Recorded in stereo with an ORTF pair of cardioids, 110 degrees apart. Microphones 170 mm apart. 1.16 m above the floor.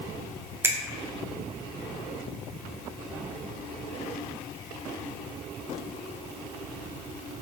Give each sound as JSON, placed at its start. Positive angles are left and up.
{"t": 0.6, "sound": "a finger snap", "azimuth_deg": -15, "distance_m": 0.5}